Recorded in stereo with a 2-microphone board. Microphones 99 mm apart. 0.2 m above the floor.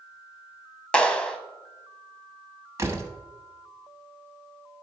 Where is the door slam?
30° right (ahead or behind), 1.0 m.